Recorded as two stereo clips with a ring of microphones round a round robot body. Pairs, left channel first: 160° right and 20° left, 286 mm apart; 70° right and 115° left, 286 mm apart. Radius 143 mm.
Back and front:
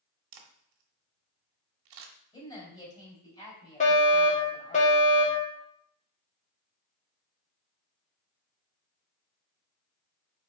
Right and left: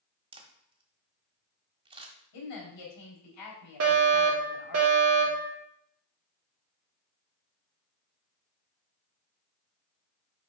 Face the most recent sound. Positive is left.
turn(degrees=140)